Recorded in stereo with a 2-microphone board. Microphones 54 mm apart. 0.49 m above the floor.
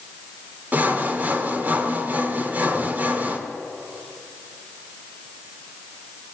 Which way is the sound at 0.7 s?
35° right (ahead or behind).